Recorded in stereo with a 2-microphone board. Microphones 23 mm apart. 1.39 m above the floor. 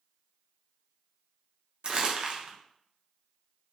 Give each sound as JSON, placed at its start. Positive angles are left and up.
{"t": 1.8, "sound": "crumpling", "side_deg": -40, "distance_m": 0.6}